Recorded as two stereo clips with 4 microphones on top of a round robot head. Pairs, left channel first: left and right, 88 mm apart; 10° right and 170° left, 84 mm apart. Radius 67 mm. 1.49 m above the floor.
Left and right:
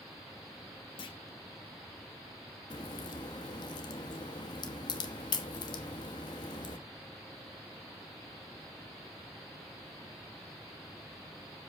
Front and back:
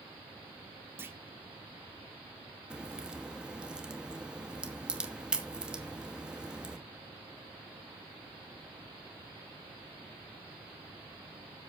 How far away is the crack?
About 1.0 m.